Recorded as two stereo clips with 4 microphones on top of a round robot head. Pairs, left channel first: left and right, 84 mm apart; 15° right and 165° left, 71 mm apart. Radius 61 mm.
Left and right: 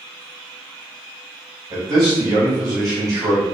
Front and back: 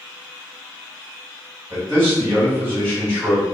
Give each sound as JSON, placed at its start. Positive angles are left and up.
{"t": 1.7, "sound": "a man speaking", "azimuth_deg": -120, "distance_m": 1.6}